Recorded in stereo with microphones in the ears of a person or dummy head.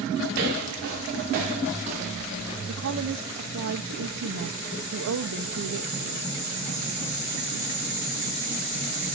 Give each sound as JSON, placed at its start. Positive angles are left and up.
{"t": 0.3, "sound": "footsteps", "side_deg": -40, "distance_m": 1.8}
{"t": 2.7, "sound": "a woman speaking", "side_deg": -75, "distance_m": 0.7}